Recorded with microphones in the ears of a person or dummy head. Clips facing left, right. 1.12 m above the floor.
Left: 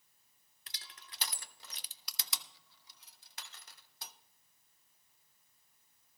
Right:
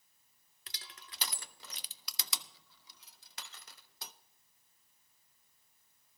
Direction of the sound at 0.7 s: 70° right (ahead or behind).